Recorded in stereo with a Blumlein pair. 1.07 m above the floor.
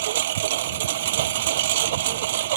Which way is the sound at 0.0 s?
55° right.